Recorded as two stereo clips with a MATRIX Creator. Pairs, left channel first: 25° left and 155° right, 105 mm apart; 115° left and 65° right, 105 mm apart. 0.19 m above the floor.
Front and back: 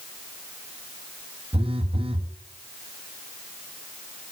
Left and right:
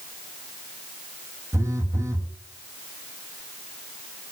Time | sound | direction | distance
1.5 | a phone buzzing | 130° right | 1.4 m